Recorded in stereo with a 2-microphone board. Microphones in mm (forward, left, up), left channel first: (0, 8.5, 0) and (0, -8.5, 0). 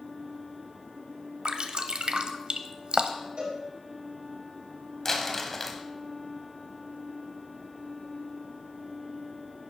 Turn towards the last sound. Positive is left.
turn(degrees=20)  # may be behind; listen again after turning